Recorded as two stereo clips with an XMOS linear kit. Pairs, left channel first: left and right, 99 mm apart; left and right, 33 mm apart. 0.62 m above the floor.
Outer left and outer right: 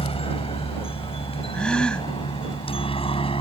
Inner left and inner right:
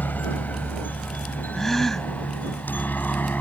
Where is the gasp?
10° left (ahead or behind).